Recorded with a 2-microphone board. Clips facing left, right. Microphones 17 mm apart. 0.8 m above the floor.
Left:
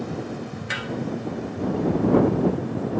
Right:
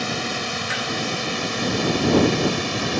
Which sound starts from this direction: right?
A drone, at 0.0 s.